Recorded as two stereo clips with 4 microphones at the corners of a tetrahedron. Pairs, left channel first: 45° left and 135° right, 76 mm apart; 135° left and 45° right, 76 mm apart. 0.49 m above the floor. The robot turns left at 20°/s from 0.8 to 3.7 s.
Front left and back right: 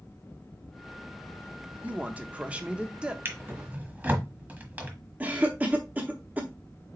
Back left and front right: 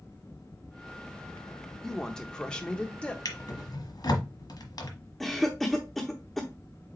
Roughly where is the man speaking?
Behind.